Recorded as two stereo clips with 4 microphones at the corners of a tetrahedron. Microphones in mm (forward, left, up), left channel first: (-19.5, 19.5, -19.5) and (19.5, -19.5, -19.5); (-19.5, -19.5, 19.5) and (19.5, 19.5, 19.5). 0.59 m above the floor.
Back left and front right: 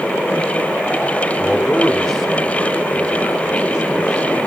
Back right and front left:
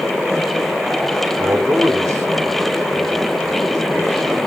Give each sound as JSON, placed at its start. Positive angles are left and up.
{"t": 1.4, "sound": "a man speaking", "azimuth_deg": 60, "distance_m": 1.5}